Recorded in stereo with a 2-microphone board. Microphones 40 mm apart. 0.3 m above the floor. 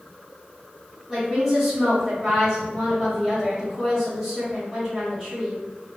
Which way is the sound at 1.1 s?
15° right (ahead or behind).